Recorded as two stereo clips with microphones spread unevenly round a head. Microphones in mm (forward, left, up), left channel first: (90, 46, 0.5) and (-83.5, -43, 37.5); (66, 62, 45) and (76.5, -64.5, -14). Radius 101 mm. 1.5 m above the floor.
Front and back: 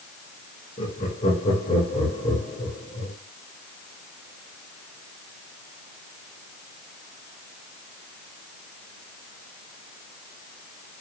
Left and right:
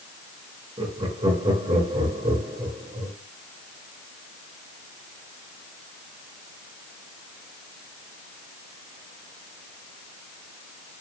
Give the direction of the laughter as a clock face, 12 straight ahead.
1 o'clock.